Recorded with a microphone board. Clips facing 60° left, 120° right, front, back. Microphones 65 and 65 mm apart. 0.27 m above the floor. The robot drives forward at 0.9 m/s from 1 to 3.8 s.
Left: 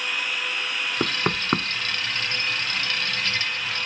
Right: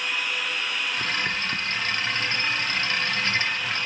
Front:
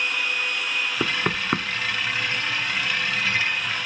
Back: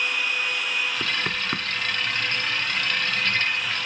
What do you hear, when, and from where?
1.0 s knocking: 50° left; by 1.7 s 65° left